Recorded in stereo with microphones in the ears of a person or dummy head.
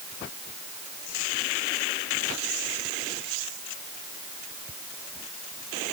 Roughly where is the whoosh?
No whoosh in this recording.